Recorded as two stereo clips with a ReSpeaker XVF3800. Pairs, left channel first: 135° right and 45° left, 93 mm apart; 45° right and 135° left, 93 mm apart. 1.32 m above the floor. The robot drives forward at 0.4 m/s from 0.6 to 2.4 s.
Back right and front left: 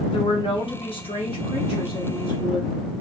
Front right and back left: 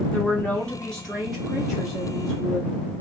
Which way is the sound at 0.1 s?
120° right.